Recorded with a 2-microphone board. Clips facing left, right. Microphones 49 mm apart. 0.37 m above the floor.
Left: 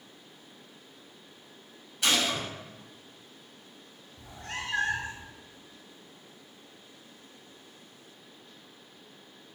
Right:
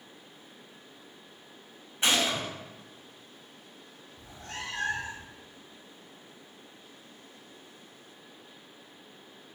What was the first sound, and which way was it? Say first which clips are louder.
A gunshot: right 1 dB; 30° right (ahead or behind).